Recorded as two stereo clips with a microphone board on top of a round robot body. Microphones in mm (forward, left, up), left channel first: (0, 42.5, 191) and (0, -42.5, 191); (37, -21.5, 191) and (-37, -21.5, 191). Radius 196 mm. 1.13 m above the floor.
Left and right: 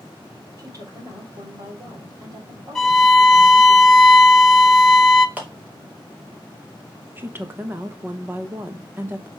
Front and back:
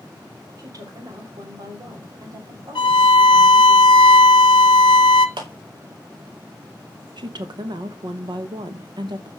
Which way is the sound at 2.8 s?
5° left.